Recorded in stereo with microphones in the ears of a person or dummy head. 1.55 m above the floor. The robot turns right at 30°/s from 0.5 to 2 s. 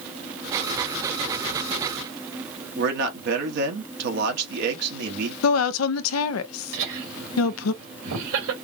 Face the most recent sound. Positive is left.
turn(degrees=-70)  # may be behind; listen again after turning